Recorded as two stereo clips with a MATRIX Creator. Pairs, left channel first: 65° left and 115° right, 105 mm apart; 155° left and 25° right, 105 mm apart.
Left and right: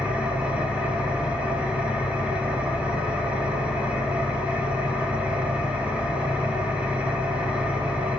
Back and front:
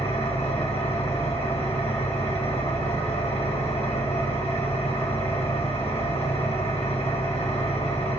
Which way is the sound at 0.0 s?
170° left.